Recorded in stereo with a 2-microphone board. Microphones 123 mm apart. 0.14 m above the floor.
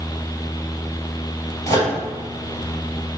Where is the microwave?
25° left (ahead or behind), 2.5 m.